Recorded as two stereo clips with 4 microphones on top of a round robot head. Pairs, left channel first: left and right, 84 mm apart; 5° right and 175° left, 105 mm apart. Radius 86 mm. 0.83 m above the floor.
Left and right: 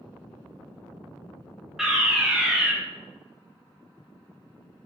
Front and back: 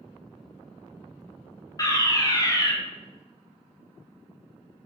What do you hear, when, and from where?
1.8 s a fire alarm: 10° right, 1.4 m